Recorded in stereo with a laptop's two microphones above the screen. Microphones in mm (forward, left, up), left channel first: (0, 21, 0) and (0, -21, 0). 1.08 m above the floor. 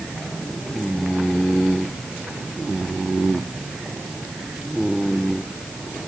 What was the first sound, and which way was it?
Only background noise.